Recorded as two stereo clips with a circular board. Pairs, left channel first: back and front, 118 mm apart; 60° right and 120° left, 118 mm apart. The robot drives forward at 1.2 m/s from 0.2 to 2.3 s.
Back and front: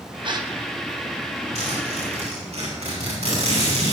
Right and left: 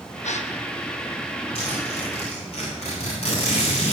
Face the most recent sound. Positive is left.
turn(degrees=-30)